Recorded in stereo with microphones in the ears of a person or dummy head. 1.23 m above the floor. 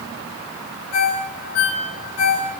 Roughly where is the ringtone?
Left.